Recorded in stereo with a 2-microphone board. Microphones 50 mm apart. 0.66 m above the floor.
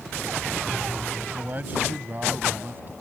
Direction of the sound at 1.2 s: 30° right (ahead or behind).